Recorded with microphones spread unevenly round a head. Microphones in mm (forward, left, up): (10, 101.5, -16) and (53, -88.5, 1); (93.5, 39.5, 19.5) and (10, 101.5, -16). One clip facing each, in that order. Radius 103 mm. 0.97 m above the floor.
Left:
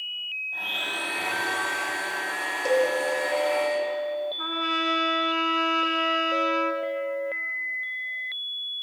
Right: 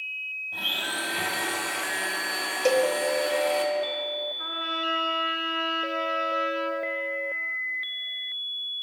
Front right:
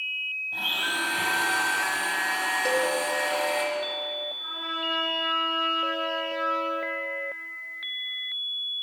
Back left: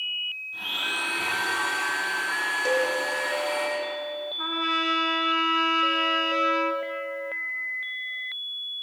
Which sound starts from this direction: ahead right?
A blender, at 0.5 s.